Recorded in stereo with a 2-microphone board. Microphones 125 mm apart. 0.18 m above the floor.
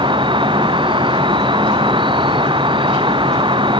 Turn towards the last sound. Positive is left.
turn(degrees=-40)  # may be behind; listen again after turning